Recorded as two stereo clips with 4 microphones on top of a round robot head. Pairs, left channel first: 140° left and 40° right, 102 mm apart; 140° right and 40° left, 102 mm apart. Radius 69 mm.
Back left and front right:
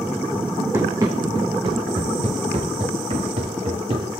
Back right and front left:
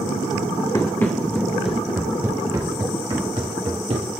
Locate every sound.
0.7 s running footsteps: 95° right, 1.4 m; by 4.2 s 5° left, 2.5 m